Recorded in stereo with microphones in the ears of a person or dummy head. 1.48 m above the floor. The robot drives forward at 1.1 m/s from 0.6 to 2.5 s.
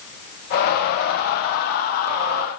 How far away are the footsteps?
I don't hear footsteps.